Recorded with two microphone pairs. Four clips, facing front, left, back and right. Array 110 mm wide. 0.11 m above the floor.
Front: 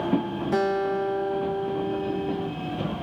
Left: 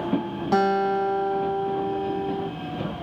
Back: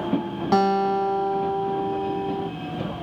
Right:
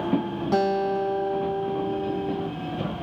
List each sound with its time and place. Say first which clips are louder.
0.5 s a guitar: left 2 dB, back 5 dB; 170° left, 1.1 m